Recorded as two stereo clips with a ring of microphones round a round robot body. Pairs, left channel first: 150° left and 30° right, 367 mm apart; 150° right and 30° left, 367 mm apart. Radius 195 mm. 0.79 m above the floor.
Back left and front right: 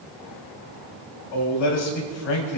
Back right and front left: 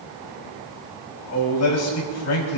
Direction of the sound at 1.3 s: 160° left.